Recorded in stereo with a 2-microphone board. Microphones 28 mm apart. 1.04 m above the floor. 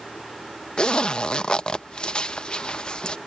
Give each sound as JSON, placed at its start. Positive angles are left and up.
{"t": 0.8, "sound": "a zipper", "side_deg": 40}